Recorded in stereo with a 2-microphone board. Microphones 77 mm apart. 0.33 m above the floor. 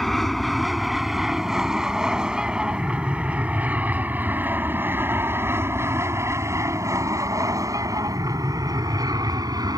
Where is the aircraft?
Centre (ahead or behind); by 9.8 s 60° right (ahead or behind).